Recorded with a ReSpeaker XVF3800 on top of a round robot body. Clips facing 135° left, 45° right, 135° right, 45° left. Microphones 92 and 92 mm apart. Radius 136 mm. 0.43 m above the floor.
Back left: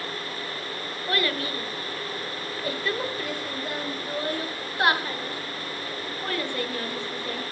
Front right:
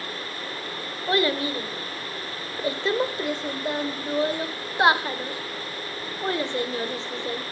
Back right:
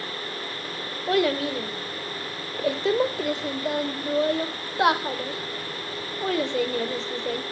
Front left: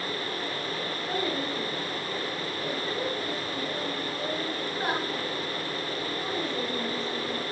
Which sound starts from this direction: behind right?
A child speaking, at 1.1 s.